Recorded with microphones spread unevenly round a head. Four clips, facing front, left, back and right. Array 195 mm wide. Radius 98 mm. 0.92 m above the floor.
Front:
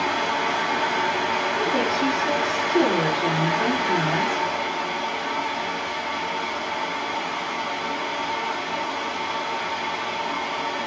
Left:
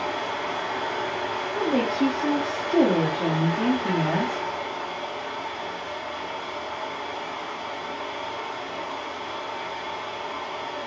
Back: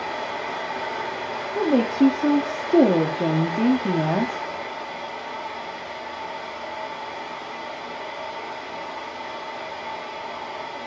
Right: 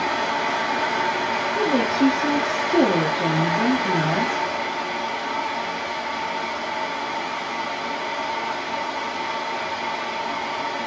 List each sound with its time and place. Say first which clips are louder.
0.0 s a fan: right 5 dB, front 5 dB; 50° right, 3 m
1.6 s a woman speaking: right 2 dB, back 8 dB; 175° right, 1.9 m